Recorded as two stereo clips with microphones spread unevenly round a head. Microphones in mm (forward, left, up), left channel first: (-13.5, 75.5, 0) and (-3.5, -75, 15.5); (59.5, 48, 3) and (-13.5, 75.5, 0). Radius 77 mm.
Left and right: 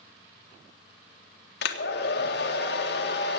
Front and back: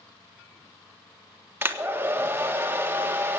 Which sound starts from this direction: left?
A hair dryer, at 1.6 s.